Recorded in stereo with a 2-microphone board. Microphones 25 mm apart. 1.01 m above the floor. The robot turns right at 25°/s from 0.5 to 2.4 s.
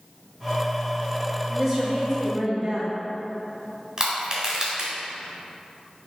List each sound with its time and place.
1.5 s a woman speaking: centre (ahead or behind), 2.0 m; by 2.9 s 25° right (ahead or behind), 2.0 m
4.0 s crushing: 30° right (ahead or behind), 2.0 m